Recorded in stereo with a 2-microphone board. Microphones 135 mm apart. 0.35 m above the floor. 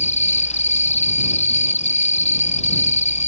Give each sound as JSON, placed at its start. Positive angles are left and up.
{"t": 0.0, "sound": "an insect", "side_deg": 55}